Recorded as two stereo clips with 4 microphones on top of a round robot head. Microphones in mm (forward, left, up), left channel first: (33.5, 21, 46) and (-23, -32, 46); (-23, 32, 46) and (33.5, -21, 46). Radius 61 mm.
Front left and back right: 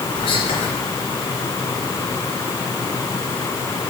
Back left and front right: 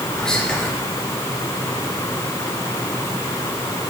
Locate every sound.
0.1 s whispering: 55° left, 3.5 m